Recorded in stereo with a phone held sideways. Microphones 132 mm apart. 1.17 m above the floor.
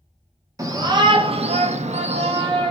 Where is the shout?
25° right (ahead or behind), 0.7 m; by 2.7 s 40° right (ahead or behind), 0.7 m.